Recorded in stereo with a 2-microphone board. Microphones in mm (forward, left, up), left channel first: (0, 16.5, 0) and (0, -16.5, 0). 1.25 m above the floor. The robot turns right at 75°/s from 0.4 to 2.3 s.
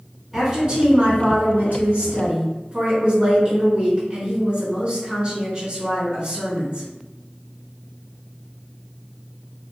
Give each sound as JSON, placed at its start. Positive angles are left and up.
{"t": 0.3, "sound": "a woman speaking", "azimuth_deg": -170, "distance_m": 1.8}